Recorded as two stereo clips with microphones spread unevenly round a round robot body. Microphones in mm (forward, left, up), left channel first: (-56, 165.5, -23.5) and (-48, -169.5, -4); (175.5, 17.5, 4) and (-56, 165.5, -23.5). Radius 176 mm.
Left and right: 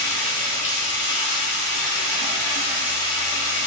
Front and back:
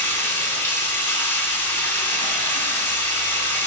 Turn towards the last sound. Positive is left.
turn(degrees=50)